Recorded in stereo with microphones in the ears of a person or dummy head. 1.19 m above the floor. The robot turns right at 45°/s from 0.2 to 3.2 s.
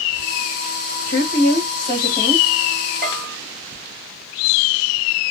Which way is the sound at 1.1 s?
110° left.